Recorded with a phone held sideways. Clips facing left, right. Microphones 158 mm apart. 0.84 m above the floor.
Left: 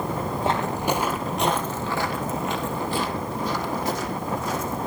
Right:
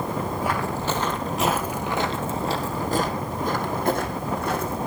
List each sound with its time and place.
0.4 s footsteps: 25° left (ahead or behind), 1.6 m; by 4.8 s 65° right (ahead or behind), 3 m